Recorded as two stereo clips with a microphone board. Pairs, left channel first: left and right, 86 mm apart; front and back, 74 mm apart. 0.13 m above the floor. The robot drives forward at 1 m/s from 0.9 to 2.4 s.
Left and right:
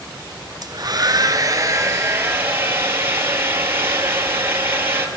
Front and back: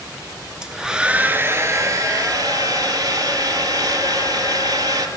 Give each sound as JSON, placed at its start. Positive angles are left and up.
{"t": 0.6, "sound": "a hair dryer", "azimuth_deg": -100, "distance_m": 1.3}